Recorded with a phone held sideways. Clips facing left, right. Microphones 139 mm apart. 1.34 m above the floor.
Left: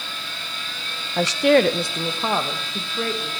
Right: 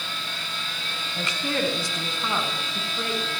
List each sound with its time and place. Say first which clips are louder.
1.2 s a woman speaking: left 12 dB; 75° left (ahead or behind), 0.7 m; by 3.3 s 30° left (ahead or behind), 2.0 m